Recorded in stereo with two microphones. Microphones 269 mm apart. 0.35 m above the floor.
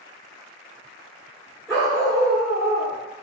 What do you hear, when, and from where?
1.7 s a dog barking: 5° left (ahead or behind), 1.3 m